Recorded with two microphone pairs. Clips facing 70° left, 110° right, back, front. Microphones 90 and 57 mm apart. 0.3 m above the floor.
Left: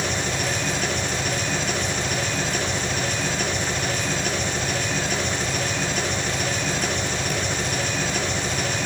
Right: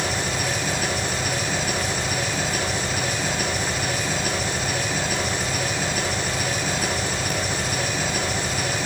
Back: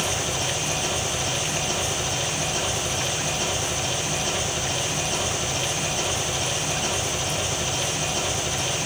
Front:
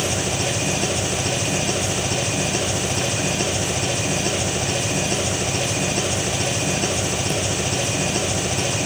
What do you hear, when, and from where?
0.0 s an engine running: 25° right, 4.5 m